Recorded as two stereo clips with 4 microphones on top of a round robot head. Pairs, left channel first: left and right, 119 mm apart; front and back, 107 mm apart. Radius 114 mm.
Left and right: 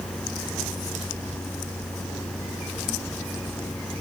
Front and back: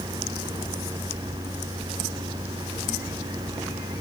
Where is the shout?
No shout in this recording.